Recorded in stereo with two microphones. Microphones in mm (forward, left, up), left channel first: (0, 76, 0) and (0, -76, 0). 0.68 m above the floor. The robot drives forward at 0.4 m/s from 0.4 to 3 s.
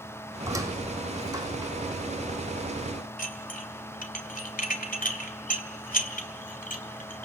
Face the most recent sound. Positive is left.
turn(degrees=65)  # may be behind; listen again after turning